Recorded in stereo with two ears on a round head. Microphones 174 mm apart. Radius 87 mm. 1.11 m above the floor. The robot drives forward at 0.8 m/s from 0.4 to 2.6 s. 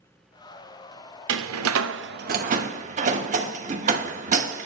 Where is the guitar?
No guitar in this recording.